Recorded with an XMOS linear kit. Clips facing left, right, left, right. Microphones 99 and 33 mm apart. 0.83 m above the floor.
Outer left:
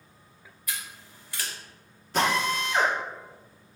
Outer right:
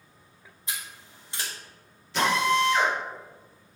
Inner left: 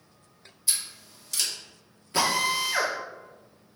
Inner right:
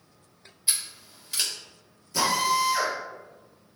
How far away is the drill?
About 2 m.